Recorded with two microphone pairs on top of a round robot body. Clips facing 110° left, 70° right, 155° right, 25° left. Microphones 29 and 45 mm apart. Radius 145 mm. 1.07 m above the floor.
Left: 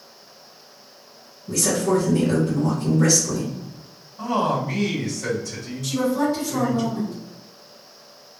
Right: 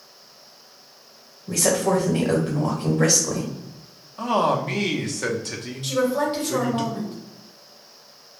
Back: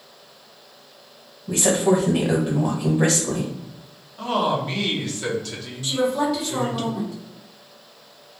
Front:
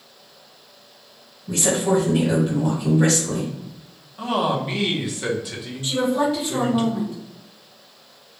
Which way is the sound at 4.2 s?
60° right.